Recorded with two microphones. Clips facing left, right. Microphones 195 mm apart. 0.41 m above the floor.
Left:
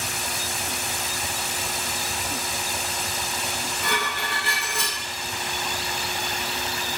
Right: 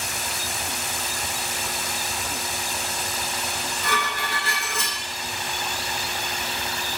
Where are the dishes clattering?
60° left (ahead or behind), 1.0 m.